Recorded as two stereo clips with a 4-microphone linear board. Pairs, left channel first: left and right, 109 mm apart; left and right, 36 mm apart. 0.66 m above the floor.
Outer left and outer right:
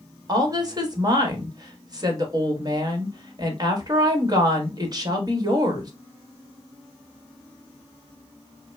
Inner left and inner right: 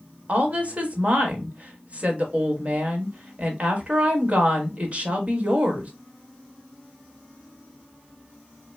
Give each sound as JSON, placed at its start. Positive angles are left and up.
{"t": 0.3, "sound": "a woman speaking", "side_deg": -35, "distance_m": 1.3}